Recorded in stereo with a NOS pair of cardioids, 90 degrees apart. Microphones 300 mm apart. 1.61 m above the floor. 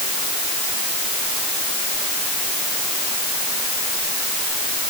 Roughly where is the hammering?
No hammering in this recording.